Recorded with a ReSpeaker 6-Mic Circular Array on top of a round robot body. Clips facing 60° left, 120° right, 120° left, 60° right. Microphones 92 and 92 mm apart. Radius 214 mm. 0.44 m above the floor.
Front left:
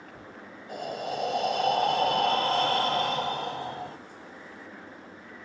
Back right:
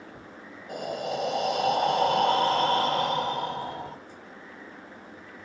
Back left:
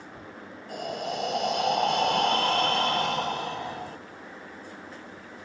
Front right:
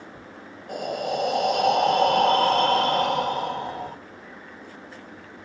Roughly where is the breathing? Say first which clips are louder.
Back right 2 dB, front right 5 dB; ahead right.